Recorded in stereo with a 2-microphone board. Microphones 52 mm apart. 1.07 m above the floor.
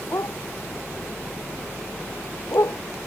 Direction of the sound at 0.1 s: 75° left (ahead or behind).